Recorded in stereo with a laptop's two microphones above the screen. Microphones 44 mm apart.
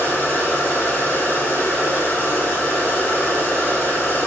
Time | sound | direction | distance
0.0 | a machine running | 60° left (ahead or behind) | 5.5 m